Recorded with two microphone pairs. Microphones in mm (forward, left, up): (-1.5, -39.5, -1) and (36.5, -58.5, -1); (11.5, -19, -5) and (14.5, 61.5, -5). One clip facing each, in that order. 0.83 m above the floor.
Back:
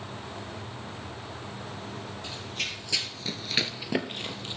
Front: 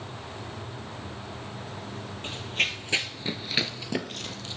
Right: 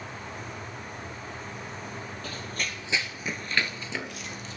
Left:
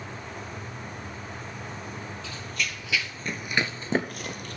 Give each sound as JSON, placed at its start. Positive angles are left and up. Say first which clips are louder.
{"t": 2.2, "sound": "running footsteps", "louder": "front 8 dB, left 1 dB", "azimuth_deg": -60, "distance_m": 1.7}